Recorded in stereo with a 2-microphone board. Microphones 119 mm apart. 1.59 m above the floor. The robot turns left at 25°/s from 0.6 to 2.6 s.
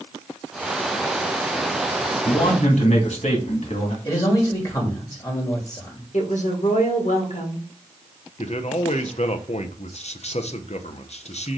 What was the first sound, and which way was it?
A man speaking, 70° left (ahead or behind).